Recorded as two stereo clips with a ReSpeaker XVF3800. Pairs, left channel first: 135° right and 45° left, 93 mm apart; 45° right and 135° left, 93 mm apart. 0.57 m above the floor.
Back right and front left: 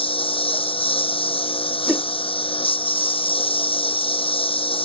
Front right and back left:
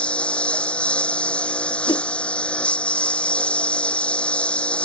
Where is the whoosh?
30° right.